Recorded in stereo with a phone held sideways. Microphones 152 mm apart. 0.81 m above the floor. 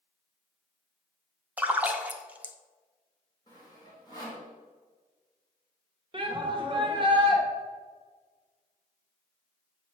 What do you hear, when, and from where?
1.6 s a splash: 10° right (ahead or behind), 0.6 m
3.5 s sawing: 25° left (ahead or behind), 2 m
6.1 s a shout: 35° right (ahead or behind), 1.2 m